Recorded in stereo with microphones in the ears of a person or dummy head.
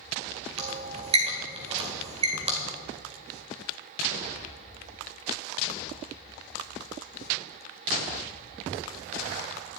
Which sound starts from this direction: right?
A squeak, at 0.6 s.